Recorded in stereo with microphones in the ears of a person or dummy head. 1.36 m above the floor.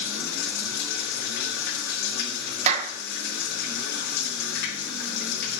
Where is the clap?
35° right (ahead or behind), 1.0 m.